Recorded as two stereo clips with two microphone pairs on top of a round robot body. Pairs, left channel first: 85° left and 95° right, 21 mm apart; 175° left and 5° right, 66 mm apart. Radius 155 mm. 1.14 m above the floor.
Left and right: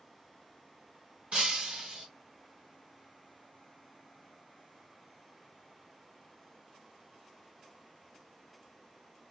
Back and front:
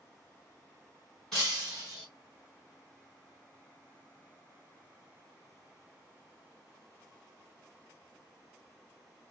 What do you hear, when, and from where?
1.3 s breaking glass: 100° right, 1.0 m